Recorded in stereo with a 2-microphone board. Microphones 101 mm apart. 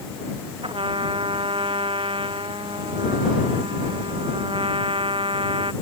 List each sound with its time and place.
0.6 s a trumpet: 60° right (ahead or behind)